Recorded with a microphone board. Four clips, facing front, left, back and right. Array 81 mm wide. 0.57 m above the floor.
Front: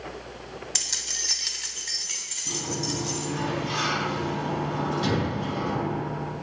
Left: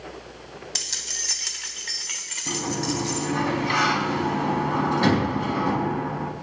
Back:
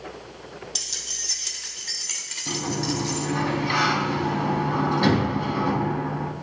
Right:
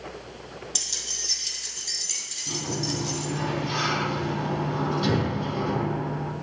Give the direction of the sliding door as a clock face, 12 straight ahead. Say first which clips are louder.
Left 3 dB, back 4 dB; 8 o'clock.